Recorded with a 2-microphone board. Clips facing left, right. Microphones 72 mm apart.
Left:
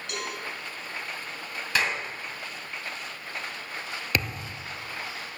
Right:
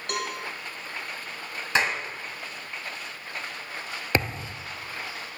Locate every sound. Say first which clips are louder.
0.1 s a cowbell: right 4 dB; 55° right (ahead or behind), 2.5 m
1.8 s a clap: right 2 dB; 25° right (ahead or behind), 1.9 m
4.1 s a thud: right 4 dB; 30° right (ahead or behind), 0.7 m